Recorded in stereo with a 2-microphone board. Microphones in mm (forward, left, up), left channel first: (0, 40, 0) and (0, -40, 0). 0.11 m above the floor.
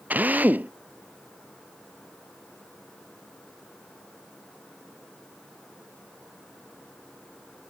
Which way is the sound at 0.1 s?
20° right (ahead or behind).